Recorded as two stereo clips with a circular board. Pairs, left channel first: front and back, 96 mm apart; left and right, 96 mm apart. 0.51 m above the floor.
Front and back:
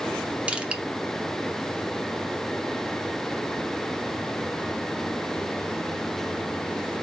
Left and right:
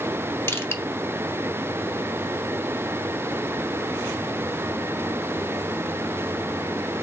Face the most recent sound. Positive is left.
turn(degrees=115)